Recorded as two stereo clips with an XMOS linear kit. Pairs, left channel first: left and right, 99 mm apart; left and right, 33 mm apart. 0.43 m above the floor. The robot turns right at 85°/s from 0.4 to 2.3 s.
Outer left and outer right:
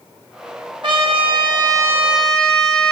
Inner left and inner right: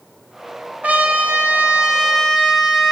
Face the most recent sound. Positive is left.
turn(degrees=5)